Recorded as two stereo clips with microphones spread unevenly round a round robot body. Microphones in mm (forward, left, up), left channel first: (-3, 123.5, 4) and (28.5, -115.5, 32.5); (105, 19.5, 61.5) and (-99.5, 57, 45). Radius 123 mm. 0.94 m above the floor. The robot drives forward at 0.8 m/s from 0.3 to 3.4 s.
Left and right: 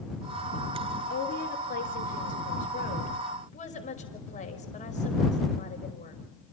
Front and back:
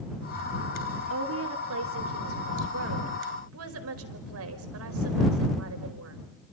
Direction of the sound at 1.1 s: 150° left.